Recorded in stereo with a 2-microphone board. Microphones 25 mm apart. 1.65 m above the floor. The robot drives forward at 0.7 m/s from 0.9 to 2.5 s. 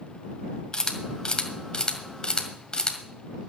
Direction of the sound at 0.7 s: 30° left (ahead or behind).